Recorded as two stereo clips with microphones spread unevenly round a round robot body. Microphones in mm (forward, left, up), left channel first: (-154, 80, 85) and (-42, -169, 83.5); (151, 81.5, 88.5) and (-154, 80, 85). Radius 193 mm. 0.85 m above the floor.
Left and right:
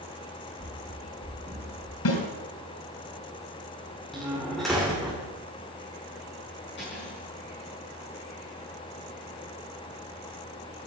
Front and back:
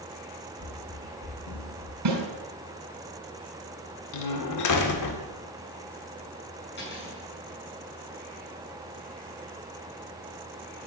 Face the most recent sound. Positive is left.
turn(degrees=55)